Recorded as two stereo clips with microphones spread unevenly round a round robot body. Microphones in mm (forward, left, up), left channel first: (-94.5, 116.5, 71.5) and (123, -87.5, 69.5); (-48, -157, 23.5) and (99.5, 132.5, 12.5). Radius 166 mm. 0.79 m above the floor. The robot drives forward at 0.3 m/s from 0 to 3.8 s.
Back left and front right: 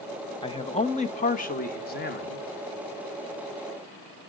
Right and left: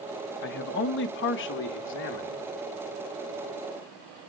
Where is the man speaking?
155° right, 0.9 m; by 2.5 s 170° right, 1.3 m.